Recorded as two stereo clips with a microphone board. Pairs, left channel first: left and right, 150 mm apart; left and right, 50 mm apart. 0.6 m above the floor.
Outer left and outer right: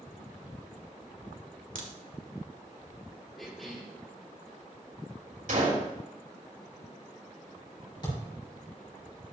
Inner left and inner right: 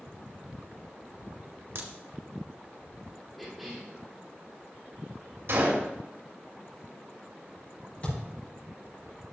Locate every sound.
1.8 s a crack: 80° right, 1.8 m
3.4 s a cough: centre (ahead or behind), 1.7 m
5.5 s a gunshot: 70° right (ahead or behind), 3 m
8.0 s a thud: 35° left (ahead or behind), 5 m